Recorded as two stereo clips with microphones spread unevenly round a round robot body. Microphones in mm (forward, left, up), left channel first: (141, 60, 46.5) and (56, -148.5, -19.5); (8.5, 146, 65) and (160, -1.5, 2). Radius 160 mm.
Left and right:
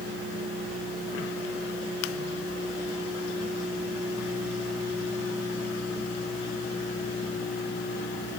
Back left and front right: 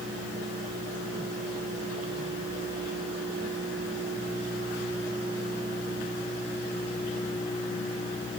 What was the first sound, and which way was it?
Only background noise.